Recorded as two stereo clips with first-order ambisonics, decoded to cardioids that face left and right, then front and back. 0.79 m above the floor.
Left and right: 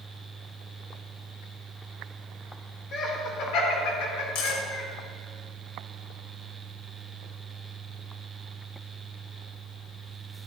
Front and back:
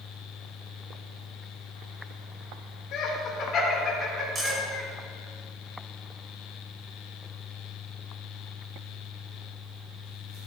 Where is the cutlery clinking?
105° left, 1.8 m.